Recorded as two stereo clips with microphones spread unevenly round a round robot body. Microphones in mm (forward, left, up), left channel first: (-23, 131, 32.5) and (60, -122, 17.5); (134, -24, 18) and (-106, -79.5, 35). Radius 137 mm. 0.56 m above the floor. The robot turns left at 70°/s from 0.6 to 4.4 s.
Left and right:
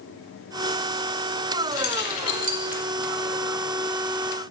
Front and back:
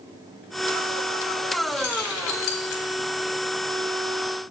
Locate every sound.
1.7 s keys jangling: 80° left, 1.3 m; by 2.8 s straight ahead, 1.3 m